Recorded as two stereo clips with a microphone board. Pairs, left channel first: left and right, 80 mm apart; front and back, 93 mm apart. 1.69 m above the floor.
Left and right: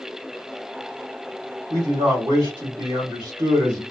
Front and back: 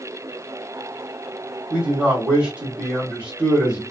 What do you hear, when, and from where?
1.7 s a man speaking: 100° right, 1.3 m